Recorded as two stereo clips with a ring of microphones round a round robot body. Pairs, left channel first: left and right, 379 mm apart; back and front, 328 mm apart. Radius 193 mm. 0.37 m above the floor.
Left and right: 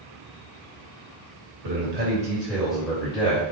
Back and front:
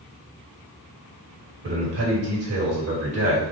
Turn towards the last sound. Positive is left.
turn(degrees=25)